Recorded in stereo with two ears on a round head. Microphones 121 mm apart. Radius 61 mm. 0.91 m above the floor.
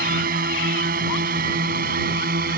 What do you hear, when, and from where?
0.0 s a drone: 65° right (ahead or behind); by 2.6 s 70° right (ahead or behind)